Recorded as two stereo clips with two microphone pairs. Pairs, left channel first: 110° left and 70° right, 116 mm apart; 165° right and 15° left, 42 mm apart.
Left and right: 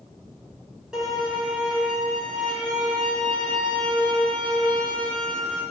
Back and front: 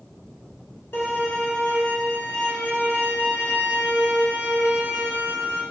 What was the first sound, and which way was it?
A violin, 150° right.